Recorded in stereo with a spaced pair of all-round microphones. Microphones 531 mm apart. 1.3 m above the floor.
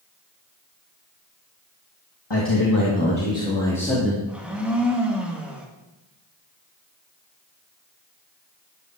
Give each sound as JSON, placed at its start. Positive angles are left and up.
{"t": 2.3, "sound": "a man speaking", "side_deg": 50, "distance_m": 2.0}
{"t": 4.3, "sound": "a blender", "side_deg": 0, "distance_m": 2.0}